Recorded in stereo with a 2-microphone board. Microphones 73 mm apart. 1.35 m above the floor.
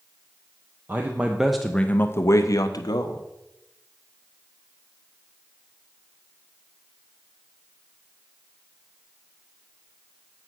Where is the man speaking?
30° right (ahead or behind), 0.8 m; by 3.2 s 70° left (ahead or behind), 1.0 m.